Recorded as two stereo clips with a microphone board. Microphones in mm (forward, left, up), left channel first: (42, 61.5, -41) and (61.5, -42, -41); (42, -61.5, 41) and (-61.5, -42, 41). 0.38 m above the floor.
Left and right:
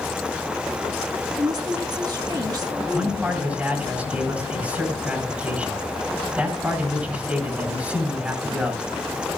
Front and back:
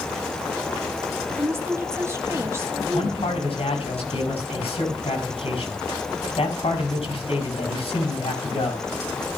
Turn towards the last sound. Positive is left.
turn(degrees=-5)